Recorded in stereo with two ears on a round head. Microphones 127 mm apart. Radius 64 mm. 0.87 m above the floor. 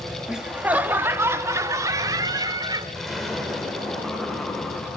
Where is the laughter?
5° right (ahead or behind), 1.5 m; by 2.9 s 30° right (ahead or behind), 3 m.